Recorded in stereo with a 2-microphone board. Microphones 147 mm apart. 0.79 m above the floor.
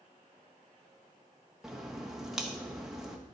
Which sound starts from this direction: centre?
A crack, at 1.6 s.